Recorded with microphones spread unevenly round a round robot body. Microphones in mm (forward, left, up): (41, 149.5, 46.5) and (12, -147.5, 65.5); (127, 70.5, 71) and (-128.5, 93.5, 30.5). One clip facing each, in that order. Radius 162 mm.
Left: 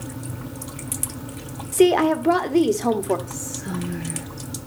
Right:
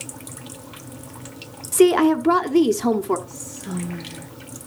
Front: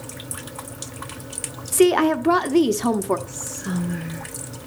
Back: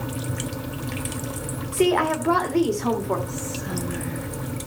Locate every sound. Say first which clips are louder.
1.7 s a woman speaking: right 2 dB, front 5 dB; 35° right, 1.2 m
3.3 s whispering: left 2 dB, back 1 dB; 35° left, 10 m